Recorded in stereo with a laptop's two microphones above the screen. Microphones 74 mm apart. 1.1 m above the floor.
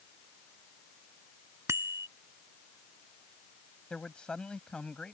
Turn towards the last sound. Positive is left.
turn(degrees=15)  # may be behind; listen again after turning